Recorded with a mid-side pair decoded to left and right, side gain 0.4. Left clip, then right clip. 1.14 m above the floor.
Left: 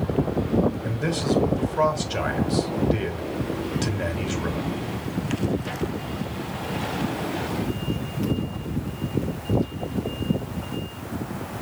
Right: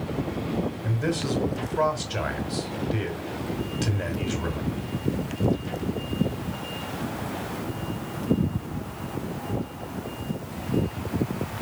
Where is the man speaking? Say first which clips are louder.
Left 2 dB; 15° left, 3.5 m.